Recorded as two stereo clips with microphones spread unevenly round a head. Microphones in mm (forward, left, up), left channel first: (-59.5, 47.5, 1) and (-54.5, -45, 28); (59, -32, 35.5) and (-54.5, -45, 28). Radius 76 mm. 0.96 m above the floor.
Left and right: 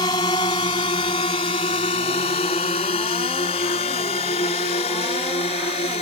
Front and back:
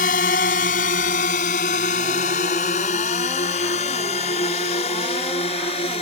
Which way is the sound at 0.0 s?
30° left.